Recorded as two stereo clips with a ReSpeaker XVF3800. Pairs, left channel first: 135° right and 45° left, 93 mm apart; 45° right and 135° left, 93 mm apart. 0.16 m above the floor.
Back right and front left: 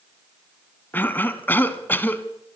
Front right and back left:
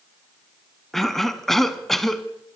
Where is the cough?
125° right, 1.1 m.